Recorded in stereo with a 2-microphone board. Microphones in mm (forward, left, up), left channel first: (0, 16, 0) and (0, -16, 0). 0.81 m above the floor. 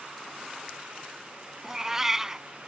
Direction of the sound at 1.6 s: 15° right (ahead or behind).